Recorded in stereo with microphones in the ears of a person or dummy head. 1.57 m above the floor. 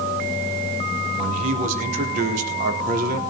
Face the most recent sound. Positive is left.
turn(degrees=-50)  # may be behind; listen again after turning